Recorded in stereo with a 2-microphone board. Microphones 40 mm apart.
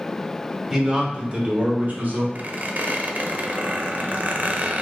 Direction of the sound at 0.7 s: 15° right (ahead or behind).